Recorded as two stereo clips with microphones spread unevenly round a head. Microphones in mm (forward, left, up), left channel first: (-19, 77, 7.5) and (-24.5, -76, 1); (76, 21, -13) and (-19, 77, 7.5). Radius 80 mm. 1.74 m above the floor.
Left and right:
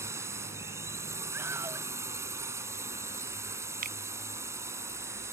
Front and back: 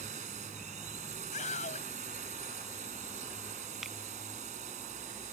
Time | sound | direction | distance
0.0 | a drone | 165° right | ?
1.3 | a scream | 15° right | ?
3.8 | a finger snap | 125° right | ?